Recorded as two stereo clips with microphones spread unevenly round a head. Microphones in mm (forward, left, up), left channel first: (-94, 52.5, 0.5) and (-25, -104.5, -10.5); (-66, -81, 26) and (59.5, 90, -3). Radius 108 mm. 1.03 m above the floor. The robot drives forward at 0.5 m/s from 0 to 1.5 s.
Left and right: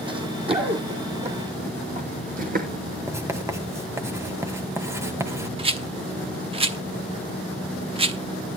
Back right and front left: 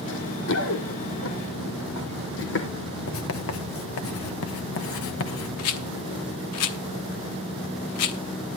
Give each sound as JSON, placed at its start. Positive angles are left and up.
{"t": 0.1, "sound": "running footsteps", "azimuth_deg": -125, "distance_m": 1.9}
{"t": 3.1, "sound": "writing", "azimuth_deg": -135, "distance_m": 1.3}
{"t": 5.6, "sound": "a rattle", "azimuth_deg": -125, "distance_m": 1.0}